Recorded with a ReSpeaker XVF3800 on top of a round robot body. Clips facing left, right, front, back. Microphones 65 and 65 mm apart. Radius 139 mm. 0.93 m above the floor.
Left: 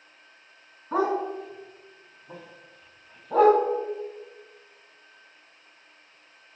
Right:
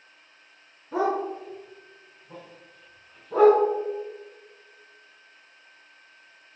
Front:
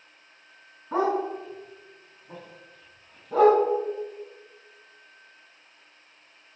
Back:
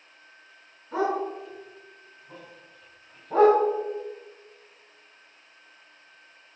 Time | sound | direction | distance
0.9 | a dog barking | 65° left | 4.5 m